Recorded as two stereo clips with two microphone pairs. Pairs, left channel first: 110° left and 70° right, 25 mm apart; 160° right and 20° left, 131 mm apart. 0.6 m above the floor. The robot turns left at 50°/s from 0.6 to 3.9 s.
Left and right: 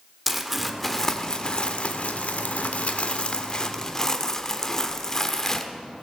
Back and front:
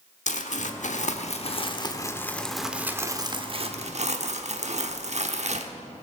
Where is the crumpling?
150° right, 1.0 m; by 5.7 s 45° left, 1.0 m.